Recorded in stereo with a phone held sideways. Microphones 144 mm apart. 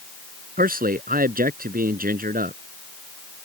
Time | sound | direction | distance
0.6 | a man speaking | 80° right | ?